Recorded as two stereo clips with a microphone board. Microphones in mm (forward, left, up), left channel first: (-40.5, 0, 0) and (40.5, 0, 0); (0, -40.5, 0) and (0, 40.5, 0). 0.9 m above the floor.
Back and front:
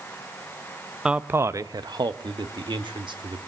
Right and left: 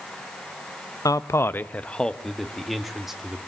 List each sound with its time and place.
1.1 s a man speaking: 75° right, 0.6 m; by 3.4 s 5° left, 2.0 m